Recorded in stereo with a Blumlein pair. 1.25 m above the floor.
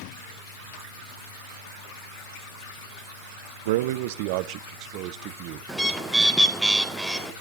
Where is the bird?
Straight ahead, 1.8 m.